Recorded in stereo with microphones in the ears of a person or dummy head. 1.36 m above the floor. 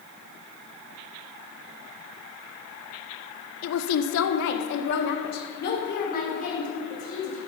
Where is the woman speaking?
75° left (ahead or behind), 0.8 m; by 7.4 s 40° left (ahead or behind), 2.5 m.